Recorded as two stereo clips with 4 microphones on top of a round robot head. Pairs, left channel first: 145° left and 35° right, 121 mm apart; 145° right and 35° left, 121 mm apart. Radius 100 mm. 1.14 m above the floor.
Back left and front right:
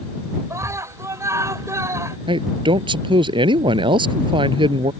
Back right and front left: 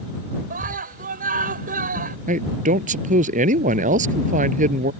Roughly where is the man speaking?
Ahead.